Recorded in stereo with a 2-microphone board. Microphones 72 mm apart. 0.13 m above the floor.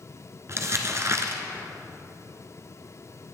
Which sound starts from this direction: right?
Crumpling, at 0.5 s.